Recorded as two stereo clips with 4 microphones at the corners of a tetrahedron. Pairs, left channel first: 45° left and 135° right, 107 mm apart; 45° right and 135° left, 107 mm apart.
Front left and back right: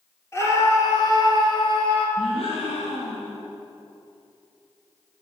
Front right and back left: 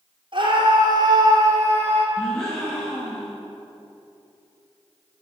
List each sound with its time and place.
0.3 s a scream: 105° left, 3 m; by 2.1 s 65° left, 3.5 m
2.2 s a gasp: 40° left, 5 m